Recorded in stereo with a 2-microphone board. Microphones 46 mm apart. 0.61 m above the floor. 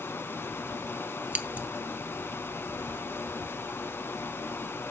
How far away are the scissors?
About 0.9 m.